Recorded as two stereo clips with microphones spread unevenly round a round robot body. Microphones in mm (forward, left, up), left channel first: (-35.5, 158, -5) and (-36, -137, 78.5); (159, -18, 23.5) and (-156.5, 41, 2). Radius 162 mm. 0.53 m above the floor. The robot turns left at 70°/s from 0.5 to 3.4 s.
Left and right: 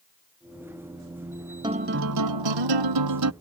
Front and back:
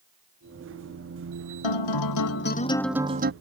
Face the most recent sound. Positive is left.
turn(degrees=-135)